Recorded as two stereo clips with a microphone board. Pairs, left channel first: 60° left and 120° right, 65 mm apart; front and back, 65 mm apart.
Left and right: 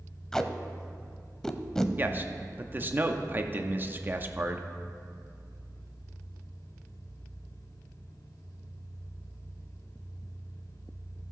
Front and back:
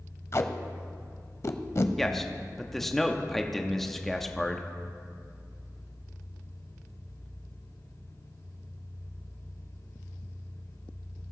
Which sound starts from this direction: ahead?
Tape being pulled, at 0.3 s.